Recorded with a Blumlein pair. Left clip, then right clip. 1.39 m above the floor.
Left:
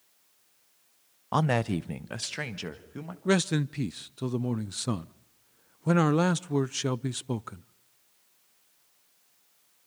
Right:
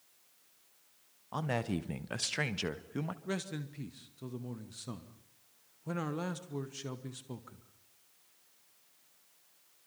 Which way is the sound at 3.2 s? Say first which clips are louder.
Left 13 dB; 30° left.